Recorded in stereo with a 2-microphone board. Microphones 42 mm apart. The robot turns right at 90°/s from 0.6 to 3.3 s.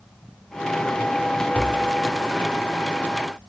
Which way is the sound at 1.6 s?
105° left.